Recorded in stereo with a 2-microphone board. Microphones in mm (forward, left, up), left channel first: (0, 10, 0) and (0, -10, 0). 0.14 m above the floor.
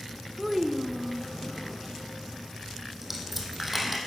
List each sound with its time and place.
0.4 s a child speaking: 10° right (ahead or behind), 0.6 m
3.0 s a dropped coin: 5° right (ahead or behind), 2.5 m